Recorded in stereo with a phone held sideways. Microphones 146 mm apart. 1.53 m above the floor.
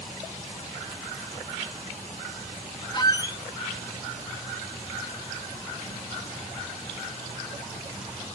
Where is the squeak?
30° left (ahead or behind), 0.8 m.